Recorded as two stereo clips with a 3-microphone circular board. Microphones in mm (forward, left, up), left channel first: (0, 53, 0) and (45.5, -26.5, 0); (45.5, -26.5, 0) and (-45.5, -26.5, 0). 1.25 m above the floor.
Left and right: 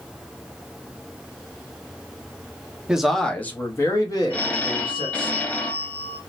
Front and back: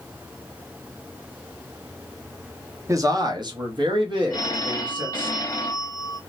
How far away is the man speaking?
About 0.6 m.